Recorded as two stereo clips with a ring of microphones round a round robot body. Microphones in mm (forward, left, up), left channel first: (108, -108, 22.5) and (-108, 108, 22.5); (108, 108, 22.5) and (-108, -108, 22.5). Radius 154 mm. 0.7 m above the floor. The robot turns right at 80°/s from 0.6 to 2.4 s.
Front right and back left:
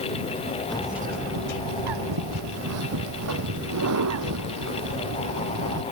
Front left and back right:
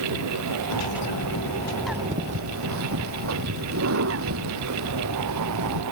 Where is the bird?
40° left; by 5.8 s 175° left.